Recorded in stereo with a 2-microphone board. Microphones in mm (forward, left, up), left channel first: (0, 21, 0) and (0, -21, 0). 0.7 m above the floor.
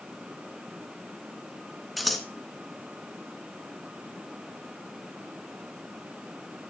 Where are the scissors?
Centre (ahead or behind), 1.2 m.